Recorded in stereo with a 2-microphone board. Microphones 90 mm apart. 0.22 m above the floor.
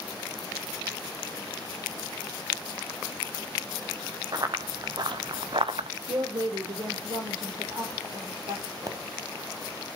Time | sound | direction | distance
4.3 | running footsteps | 45° right (ahead or behind) | 2.5 m
6.1 | a woman speaking | 60° right (ahead or behind) | 6 m
8.9 | a pop | 40° right (ahead or behind) | 0.5 m